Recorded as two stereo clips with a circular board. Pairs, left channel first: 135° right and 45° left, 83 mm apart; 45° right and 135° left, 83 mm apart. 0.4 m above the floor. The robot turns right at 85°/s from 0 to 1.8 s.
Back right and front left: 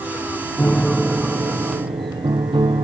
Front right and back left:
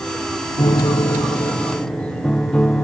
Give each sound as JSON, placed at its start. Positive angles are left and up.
{"t": 0.6, "sound": "a piano", "azimuth_deg": -75}